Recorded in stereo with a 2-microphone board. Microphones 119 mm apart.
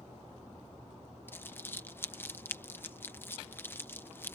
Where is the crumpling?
20° left (ahead or behind).